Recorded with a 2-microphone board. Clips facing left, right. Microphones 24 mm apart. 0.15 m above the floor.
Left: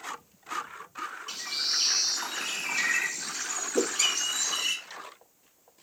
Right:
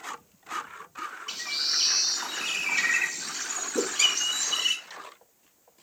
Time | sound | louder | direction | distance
1.3 | a bird | right 2 dB | 15° right (ahead or behind) | 0.7 m
3.8 | a whoosh | left 2 dB | 55° left (ahead or behind) | 0.7 m